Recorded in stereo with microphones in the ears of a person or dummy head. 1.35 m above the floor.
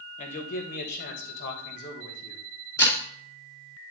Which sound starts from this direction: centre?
Breaking glass, at 2.8 s.